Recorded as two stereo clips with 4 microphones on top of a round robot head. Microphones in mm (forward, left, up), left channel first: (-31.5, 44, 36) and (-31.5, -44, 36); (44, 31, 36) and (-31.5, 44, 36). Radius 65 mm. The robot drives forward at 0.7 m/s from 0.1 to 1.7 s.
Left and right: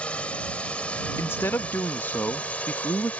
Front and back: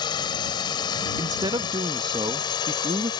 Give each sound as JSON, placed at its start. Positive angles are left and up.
{"t": 0.0, "sound": "a drone", "azimuth_deg": 10}
{"t": 1.2, "sound": "a man speaking", "azimuth_deg": 145}